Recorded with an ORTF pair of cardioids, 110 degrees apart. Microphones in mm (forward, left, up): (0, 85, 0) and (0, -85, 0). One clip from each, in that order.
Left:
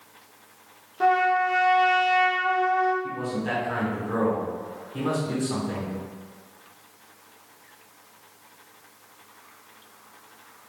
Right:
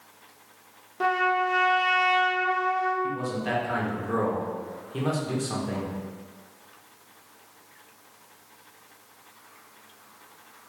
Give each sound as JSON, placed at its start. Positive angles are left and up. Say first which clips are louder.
{"t": 1.0, "sound": "a trumpet", "louder": "left 3 dB", "azimuth_deg": -5, "distance_m": 0.6}
{"t": 3.0, "sound": "a man speaking", "louder": "even", "azimuth_deg": -35, "distance_m": 1.5}